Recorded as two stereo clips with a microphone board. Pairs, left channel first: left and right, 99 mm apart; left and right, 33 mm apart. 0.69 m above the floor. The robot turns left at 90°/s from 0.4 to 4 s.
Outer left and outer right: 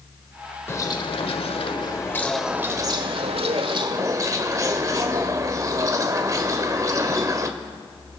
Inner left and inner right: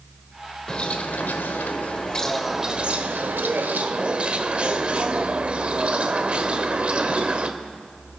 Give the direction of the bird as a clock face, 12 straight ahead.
7 o'clock.